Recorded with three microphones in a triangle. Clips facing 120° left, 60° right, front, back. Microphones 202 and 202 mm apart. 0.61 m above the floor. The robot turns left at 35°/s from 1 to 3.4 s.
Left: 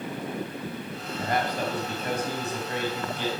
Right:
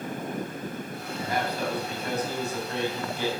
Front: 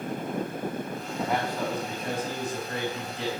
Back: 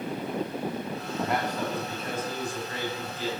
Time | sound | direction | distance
1.2 | a man speaking | 95° left | 3 m